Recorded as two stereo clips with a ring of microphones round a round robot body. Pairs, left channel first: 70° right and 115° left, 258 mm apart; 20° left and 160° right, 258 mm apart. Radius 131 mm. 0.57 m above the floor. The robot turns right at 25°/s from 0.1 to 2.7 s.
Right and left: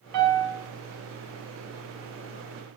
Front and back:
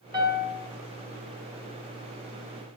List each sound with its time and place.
0.1 s a piano: 130° left, 3.5 m; by 0.6 s 140° left, 3.5 m